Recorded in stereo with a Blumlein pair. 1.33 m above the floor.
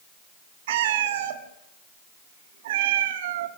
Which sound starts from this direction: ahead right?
A cat meowing, at 0.7 s.